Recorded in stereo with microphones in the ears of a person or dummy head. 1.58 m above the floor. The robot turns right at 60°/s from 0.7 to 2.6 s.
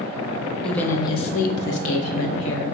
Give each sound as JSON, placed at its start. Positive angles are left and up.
{"t": 0.6, "sound": "a woman speaking", "azimuth_deg": 5, "distance_m": 0.7}